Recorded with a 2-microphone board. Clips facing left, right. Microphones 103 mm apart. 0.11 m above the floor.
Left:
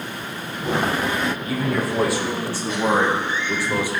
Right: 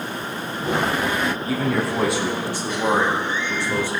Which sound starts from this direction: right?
A man speaking, at 1.5 s.